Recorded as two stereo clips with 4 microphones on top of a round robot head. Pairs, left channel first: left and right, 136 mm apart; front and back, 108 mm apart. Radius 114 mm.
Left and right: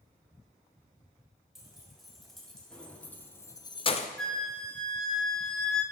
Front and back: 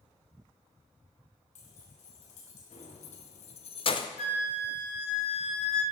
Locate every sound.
1.6 s keys jangling: 5° right, 2.5 m; by 4.1 s 55° left, 0.6 m
4.2 s a flute: 5° left, 1.1 m